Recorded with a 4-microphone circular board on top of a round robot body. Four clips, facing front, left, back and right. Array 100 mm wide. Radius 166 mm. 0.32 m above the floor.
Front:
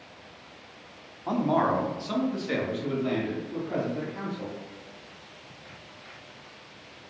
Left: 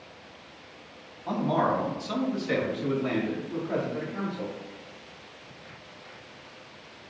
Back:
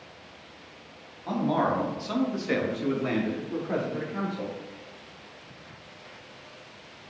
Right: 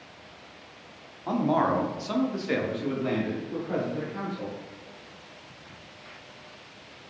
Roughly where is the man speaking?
Ahead right.